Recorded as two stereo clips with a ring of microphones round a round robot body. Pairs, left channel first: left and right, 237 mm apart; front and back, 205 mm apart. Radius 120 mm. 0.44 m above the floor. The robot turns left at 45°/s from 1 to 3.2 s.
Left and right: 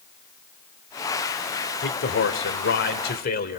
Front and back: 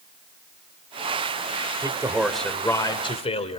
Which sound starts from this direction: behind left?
A man speaking, at 1.8 s.